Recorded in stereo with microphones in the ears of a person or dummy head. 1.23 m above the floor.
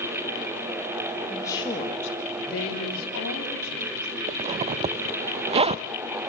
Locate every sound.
1.3 s a woman speaking: 5° left (ahead or behind), 2.5 m; by 4.2 s 80° left, 4.5 m
4.3 s a zipper: 35° right (ahead or behind), 0.5 m